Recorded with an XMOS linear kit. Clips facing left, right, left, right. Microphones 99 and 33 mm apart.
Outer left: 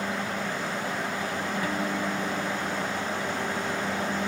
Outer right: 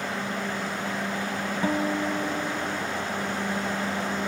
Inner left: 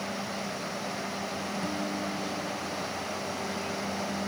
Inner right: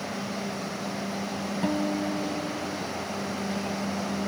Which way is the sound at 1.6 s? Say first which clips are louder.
Outer right 6 dB, inner right 8 dB; 25° right (ahead or behind).